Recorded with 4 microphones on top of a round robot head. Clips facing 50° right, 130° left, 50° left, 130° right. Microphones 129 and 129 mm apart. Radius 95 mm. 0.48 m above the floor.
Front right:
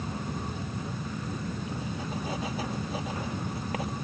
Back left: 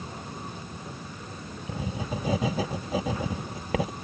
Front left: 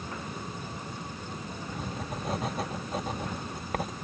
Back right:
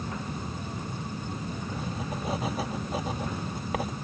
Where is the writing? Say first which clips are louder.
Back left 1 dB, even; 145° left.